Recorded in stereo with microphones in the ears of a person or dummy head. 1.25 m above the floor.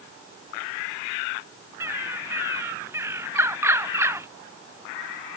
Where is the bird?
15° right (ahead or behind).